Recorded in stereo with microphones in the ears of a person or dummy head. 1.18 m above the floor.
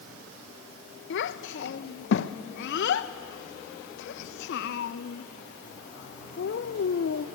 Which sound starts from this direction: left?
A child speaking, at 1.1 s.